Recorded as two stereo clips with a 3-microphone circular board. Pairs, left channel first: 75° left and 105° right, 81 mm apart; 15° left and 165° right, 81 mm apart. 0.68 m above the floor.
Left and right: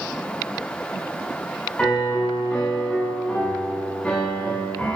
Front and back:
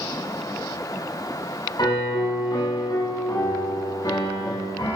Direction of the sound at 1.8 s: Straight ahead.